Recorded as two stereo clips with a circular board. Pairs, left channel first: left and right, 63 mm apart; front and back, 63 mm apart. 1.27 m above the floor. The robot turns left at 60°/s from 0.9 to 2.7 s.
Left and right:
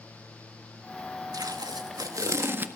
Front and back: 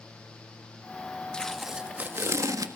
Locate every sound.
1.3 s tape being pulled: 75° right, 1.5 m; by 2.7 s 155° right, 1.5 m